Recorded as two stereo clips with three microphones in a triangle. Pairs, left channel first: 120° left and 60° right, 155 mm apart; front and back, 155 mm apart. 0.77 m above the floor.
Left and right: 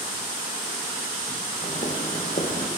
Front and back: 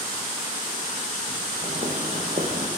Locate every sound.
1.6 s footsteps: 155° left, 1.6 m; by 2.7 s 140° left, 2 m